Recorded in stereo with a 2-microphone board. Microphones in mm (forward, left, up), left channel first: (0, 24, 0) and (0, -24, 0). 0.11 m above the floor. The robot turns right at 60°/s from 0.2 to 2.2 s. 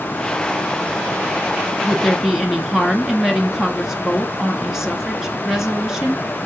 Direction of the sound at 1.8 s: Centre (ahead or behind).